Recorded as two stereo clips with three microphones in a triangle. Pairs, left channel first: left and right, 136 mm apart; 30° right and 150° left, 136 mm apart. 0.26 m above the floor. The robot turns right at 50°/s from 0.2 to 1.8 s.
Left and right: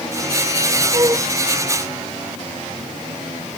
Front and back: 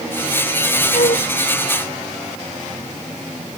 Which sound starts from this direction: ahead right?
A flute, at 0.9 s.